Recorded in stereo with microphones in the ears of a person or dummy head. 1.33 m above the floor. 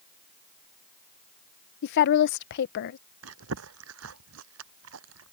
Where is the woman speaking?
55° left (ahead or behind).